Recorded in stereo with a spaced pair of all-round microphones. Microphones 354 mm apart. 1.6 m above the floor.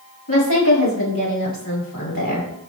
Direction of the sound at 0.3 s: 65° left (ahead or behind).